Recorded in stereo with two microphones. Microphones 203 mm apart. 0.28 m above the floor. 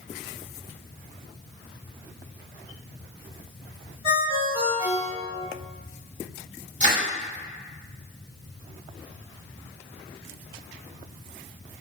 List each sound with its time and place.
4.0 s a ringtone: 30° right (ahead or behind), 1.3 m
6.8 s crushing: 35° right (ahead or behind), 1.4 m